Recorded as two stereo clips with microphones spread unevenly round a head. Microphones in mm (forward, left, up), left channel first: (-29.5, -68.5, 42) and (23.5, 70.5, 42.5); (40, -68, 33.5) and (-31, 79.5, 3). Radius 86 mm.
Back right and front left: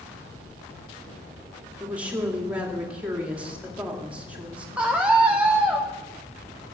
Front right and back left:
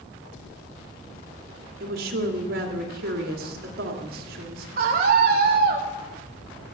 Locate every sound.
1.8 s a woman speaking: 150° left, 2.5 m
4.8 s a scream: 150° left, 1.2 m